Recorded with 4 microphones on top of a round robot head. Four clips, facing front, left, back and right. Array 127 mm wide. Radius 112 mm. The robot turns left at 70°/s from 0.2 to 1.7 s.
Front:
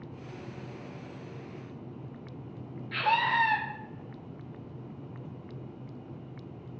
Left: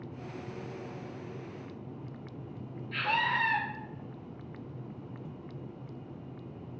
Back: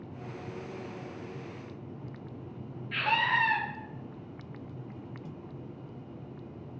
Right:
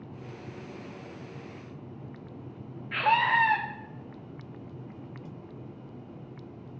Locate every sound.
2.9 s a scream: 70° right, 0.7 m